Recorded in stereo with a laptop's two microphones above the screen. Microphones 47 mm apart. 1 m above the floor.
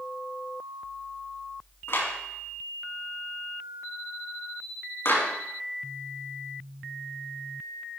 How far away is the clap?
About 6 m.